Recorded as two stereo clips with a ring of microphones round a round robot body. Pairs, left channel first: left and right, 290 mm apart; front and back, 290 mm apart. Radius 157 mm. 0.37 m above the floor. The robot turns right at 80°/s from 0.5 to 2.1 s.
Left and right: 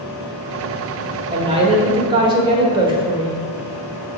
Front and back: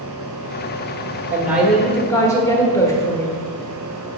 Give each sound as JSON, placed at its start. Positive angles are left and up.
{"t": 1.3, "sound": "a woman speaking", "azimuth_deg": -120, "distance_m": 1.0}